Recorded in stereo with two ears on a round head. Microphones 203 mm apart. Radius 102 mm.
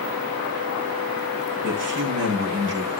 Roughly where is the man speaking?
Right.